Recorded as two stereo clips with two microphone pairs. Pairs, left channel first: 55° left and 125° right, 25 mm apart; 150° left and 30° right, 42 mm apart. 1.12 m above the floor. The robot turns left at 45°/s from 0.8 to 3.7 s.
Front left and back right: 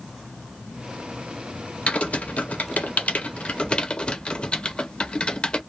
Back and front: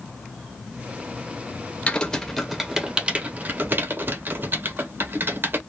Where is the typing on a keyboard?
85° left, 0.5 m; by 5.6 s 5° left, 0.5 m.